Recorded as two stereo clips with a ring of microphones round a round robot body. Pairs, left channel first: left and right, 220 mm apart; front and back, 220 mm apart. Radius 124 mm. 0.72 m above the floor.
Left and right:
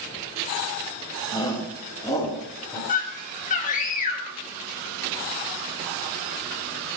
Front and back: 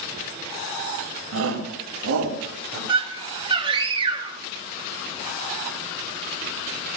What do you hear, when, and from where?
1.3 s a shout: 165° left, 4 m; by 2.8 s 170° left, 5 m
2.9 s a scream: 125° left, 1.3 m